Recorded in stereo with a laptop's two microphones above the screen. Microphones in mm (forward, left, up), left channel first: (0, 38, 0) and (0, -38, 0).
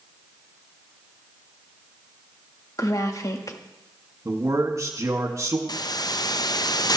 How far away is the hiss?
About 0.6 m.